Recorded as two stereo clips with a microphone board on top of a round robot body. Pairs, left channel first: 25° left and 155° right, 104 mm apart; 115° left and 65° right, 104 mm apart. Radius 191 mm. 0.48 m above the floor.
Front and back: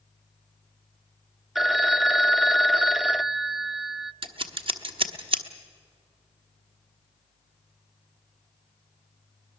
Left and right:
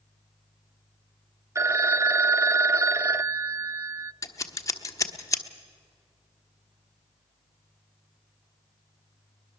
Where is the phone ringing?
70° right, 0.7 m.